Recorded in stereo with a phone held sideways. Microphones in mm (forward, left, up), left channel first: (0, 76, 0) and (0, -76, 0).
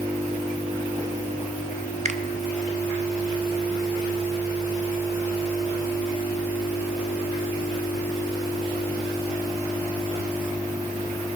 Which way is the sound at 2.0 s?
50° right (ahead or behind).